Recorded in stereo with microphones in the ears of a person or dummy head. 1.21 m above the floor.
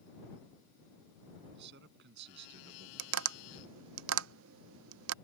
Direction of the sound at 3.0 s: 75° right (ahead or behind).